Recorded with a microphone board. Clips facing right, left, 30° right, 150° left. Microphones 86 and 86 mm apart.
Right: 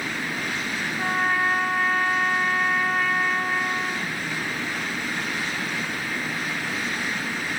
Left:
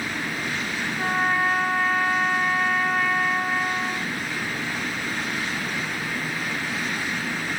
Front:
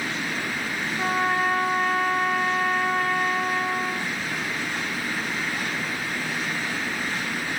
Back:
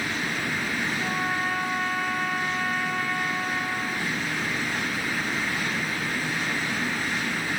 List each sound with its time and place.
1.0 s a trumpet: straight ahead, 0.8 m